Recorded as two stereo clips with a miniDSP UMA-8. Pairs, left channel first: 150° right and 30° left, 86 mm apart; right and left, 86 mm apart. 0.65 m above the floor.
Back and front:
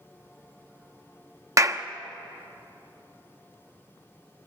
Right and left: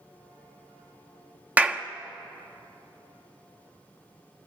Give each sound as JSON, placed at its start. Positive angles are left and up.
{"t": 1.6, "sound": "a clap", "azimuth_deg": 35, "distance_m": 0.7}